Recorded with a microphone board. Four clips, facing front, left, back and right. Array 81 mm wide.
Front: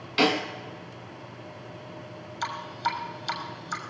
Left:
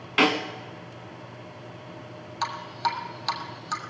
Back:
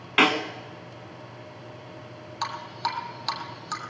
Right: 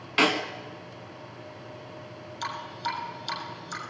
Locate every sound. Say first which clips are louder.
0.2 s a snare drum: left 2 dB, back 2 dB; 170° left, 1.1 m
2.4 s dripping: left 5 dB, even; 135° left, 2 m